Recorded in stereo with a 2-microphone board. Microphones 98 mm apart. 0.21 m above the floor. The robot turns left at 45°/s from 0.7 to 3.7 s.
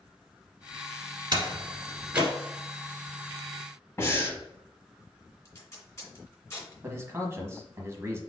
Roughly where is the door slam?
Right.